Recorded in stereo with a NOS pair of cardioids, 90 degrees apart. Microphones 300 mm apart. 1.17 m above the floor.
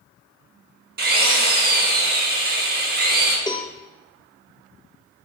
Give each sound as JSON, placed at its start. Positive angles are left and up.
{"t": 1.0, "sound": "a drill", "azimuth_deg": -35, "distance_m": 1.0}
{"t": 3.5, "sound": "a cowbell", "azimuth_deg": 15, "distance_m": 0.6}